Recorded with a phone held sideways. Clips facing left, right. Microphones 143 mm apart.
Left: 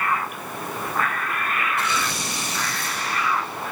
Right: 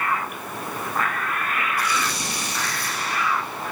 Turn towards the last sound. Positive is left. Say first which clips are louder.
# even
turn(degrees=25)  # may be behind; listen again after turning